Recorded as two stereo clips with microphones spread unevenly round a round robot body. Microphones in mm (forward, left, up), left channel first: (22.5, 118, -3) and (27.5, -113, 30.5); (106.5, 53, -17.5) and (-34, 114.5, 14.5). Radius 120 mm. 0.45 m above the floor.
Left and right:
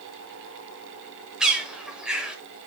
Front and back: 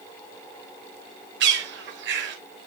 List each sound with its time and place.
1.4 s a bird: straight behind, 0.9 m